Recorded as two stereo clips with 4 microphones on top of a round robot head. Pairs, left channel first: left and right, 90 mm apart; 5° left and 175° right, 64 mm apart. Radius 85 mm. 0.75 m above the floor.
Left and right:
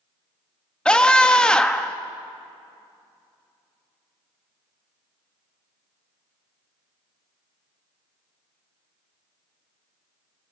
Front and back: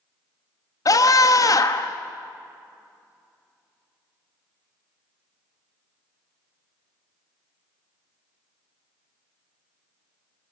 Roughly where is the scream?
Ahead.